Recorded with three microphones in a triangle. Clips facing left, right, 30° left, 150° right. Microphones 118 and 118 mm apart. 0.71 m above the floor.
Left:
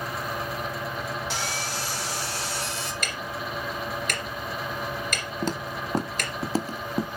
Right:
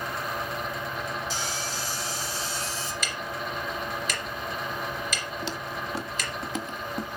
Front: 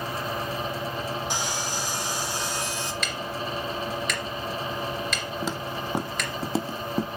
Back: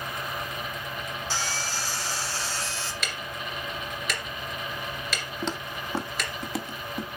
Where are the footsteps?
115° left, 1.1 m; by 7.1 s 45° left, 0.9 m.